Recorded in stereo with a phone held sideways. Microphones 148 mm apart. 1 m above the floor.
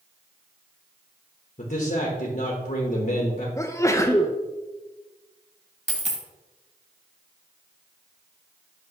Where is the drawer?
I don't hear a drawer.